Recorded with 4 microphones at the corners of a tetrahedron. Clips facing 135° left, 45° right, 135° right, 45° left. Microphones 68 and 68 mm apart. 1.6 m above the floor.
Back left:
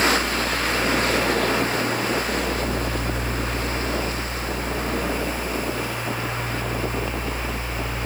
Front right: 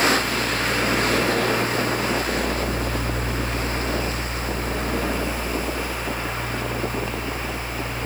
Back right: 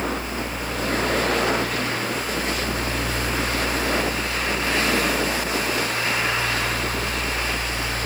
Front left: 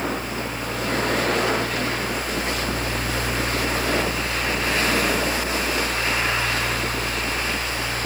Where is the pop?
I don't hear a pop.